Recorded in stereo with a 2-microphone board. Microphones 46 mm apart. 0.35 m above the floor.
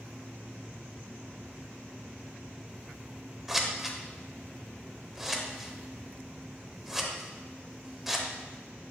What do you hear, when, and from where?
3.5 s scissors: 5° right (ahead or behind), 0.8 m